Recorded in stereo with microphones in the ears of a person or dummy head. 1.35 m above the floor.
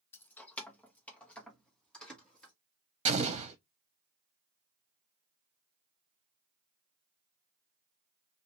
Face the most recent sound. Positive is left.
turn(degrees=-30)  # may be behind; listen again after turning